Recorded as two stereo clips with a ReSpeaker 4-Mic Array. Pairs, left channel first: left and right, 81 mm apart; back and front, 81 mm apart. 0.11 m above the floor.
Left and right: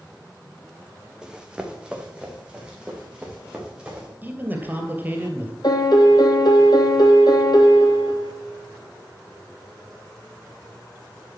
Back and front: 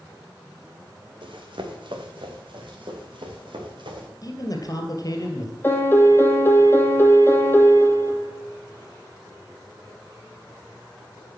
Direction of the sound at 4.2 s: 150° right.